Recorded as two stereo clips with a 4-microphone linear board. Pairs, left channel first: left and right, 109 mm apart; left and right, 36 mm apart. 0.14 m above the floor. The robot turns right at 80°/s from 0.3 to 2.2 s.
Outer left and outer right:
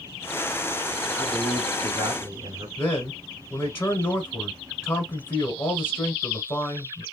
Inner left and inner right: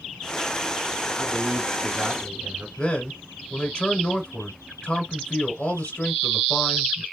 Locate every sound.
1.2 s a man speaking: 175° left, 1.5 m; by 2.7 s 100° right, 1.5 m
2.8 s a man speaking: 20° left (ahead or behind), 1.0 m